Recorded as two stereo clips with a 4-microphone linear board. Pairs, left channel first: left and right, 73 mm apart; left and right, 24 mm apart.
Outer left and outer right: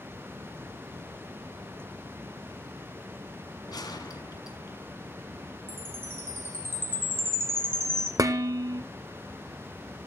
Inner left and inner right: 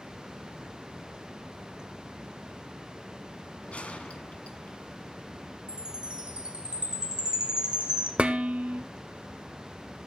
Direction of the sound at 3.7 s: 65° left (ahead or behind).